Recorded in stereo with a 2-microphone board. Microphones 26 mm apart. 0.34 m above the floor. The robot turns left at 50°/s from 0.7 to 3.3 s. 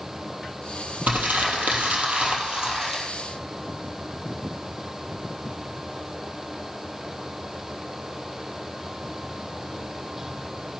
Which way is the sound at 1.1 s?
70° right.